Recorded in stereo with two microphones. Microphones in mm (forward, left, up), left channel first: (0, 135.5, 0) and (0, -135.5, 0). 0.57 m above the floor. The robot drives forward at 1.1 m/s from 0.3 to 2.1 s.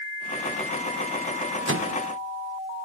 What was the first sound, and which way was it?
A microwave, 50° right (ahead or behind).